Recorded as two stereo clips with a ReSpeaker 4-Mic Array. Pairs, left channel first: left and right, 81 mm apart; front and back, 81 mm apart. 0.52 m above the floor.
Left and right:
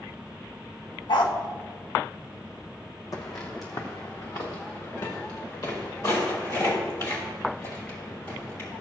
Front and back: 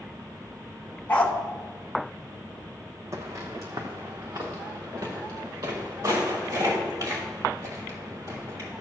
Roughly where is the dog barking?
Left.